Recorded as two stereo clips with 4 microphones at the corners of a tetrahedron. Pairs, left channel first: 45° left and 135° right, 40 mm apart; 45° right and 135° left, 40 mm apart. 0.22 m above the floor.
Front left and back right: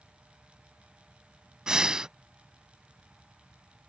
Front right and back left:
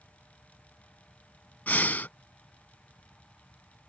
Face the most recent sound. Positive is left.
turn(degrees=-70)